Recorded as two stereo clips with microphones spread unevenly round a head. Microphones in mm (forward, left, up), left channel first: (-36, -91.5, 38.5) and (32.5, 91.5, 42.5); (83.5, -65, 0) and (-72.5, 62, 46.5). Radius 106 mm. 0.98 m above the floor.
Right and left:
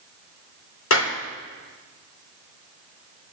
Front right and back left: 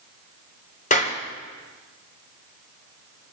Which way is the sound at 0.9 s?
95° right.